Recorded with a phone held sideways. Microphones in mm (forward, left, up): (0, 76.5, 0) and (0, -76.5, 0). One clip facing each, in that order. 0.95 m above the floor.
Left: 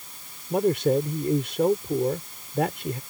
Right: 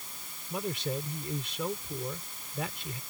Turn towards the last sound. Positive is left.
turn(degrees=65)  # may be behind; listen again after turning